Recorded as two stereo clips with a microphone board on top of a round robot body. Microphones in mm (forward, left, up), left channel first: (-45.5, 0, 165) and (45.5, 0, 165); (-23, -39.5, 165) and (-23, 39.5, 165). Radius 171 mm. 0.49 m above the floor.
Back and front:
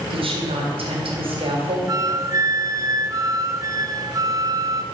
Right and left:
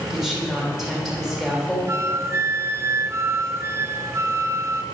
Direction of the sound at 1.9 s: 45° left.